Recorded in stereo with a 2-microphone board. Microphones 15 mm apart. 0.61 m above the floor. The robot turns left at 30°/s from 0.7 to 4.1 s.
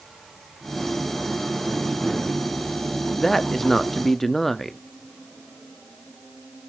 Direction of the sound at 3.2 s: 20° left (ahead or behind).